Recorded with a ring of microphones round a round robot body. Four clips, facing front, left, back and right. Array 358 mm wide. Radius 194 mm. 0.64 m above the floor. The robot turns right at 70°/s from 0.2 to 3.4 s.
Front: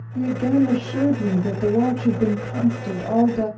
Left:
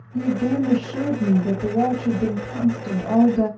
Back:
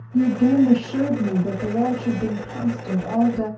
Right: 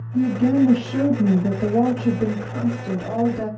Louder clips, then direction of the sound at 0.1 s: Right 3 dB, back 3 dB; 175° left.